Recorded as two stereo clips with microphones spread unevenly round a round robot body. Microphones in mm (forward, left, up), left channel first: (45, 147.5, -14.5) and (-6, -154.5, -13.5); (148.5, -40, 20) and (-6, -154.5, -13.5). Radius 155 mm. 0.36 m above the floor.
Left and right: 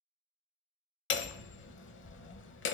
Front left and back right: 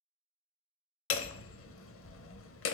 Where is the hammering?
25° left, 0.9 m.